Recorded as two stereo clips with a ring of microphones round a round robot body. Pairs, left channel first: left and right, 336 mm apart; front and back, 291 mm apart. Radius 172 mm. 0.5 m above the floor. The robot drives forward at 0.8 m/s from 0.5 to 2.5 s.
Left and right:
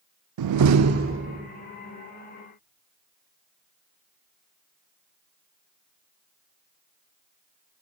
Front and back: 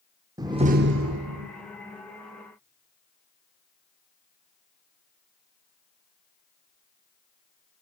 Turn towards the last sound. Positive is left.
turn(degrees=-165)